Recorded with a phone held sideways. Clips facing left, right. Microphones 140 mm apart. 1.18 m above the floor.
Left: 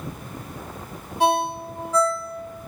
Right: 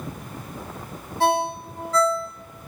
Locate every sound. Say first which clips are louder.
1.2 s a ringtone: left 1 dB; 15° left (ahead or behind), 0.7 m